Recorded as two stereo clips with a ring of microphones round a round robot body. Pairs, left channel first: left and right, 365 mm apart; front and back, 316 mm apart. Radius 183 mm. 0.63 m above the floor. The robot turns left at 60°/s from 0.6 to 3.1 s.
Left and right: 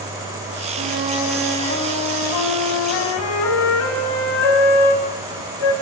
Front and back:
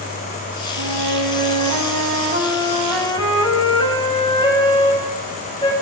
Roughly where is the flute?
Behind right.